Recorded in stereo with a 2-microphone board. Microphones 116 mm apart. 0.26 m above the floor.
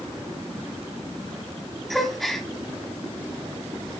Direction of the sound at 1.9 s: Centre (ahead or behind).